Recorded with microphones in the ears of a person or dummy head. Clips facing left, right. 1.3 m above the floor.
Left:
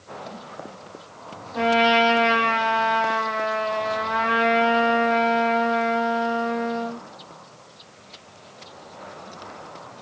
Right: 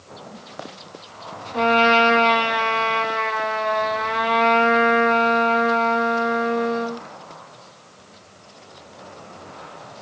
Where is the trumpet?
45° right (ahead or behind), 0.9 m.